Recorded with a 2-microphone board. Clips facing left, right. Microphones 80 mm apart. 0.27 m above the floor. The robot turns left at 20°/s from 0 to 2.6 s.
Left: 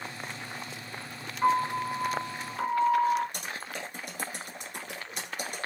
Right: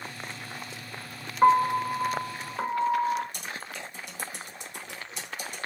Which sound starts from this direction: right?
A piano, at 1.4 s.